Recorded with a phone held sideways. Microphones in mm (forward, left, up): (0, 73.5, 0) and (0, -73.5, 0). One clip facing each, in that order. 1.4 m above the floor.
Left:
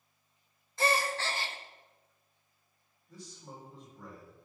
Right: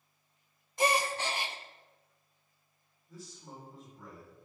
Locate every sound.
0.8 s a gasp: 15° right (ahead or behind), 0.6 m
3.1 s a man speaking: centre (ahead or behind), 4 m